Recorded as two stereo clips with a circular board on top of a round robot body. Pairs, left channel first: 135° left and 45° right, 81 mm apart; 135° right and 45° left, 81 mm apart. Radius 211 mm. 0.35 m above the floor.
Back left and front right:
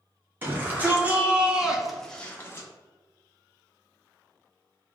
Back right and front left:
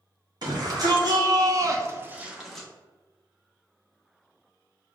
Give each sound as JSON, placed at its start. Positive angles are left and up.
{"t": 0.4, "sound": "a shout", "azimuth_deg": 20, "distance_m": 2.0}